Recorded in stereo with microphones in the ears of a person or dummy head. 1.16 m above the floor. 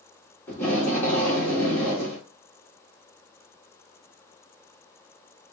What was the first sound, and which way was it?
Tape being pulled, 15° left (ahead or behind).